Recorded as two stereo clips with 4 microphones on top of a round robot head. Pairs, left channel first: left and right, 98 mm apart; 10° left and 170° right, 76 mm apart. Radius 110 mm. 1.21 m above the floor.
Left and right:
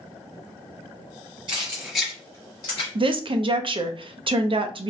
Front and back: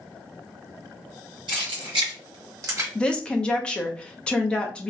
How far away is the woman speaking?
About 0.5 m.